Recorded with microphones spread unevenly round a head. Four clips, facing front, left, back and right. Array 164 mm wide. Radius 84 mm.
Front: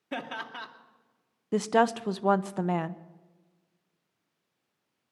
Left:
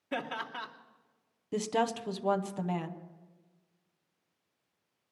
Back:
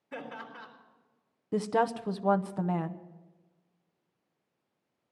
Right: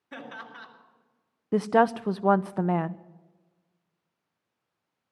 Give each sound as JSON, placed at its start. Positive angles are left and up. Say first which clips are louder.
{"t": 0.1, "sound": "laughter", "louder": "left 5 dB, front 5 dB", "azimuth_deg": 20, "distance_m": 2.5}
{"t": 1.5, "sound": "a woman speaking", "louder": "right 9 dB, front 4 dB", "azimuth_deg": -60, "distance_m": 0.7}